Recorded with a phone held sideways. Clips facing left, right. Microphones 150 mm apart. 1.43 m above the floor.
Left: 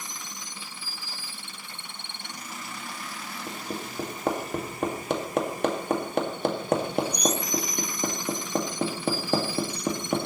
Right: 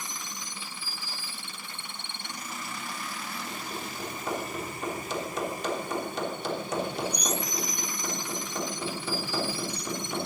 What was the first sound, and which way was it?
Hammering, 55° left (ahead or behind).